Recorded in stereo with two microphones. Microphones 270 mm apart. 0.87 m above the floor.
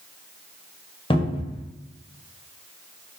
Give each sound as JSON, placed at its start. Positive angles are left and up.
{"t": 1.1, "sound": "a cupboard door", "side_deg": 20, "distance_m": 0.6}